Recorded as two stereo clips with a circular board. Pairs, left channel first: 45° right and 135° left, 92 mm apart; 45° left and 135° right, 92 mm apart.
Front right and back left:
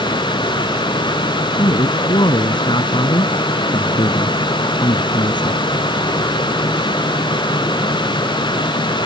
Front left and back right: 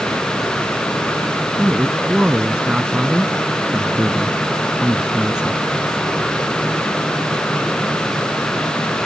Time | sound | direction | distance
1.6 | a man speaking | 55° right | ?